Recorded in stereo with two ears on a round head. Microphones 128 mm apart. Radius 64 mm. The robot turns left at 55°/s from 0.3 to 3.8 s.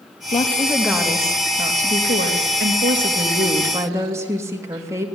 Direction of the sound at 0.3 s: 30° left.